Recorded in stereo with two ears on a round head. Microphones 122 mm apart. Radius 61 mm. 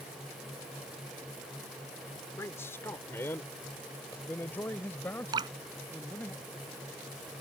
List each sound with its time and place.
2.4 s a man speaking: 20° left (ahead or behind); by 6.3 s 10° left (ahead or behind)
5.3 s dripping: 30° right (ahead or behind)